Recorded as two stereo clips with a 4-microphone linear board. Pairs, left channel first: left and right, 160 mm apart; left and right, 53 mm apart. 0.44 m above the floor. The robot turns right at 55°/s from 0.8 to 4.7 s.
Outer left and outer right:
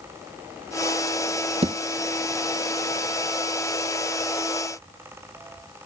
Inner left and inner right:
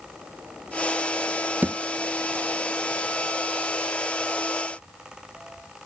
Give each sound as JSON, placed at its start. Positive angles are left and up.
{"t": 1.6, "sound": "a thud", "side_deg": -40}